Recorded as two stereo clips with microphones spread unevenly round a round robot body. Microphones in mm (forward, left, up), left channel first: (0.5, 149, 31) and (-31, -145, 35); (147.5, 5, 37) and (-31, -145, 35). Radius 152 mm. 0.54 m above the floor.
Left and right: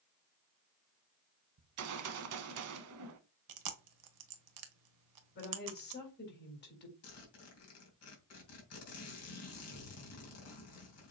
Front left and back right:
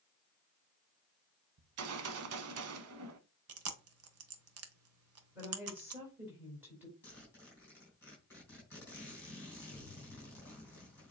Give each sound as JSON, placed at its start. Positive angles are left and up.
{"t": 1.6, "sound": "a gunshot", "azimuth_deg": -135, "distance_m": 0.8}
{"t": 3.5, "sound": "chewing", "azimuth_deg": -120, "distance_m": 1.2}
{"t": 5.3, "sound": "a woman speaking", "azimuth_deg": 135, "distance_m": 3.5}
{"t": 7.0, "sound": "a zipper", "azimuth_deg": 125, "distance_m": 3.5}